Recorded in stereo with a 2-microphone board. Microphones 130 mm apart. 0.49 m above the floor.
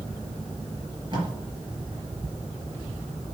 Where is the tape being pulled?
40° right (ahead or behind), 3.5 m.